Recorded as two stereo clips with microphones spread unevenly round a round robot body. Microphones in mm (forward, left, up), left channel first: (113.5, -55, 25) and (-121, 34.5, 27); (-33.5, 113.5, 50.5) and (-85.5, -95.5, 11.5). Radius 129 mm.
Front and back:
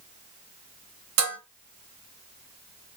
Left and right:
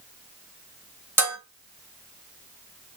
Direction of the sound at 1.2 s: Straight behind.